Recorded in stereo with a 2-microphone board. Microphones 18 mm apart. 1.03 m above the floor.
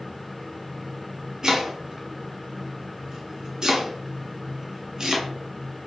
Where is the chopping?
35° right (ahead or behind), 0.8 m.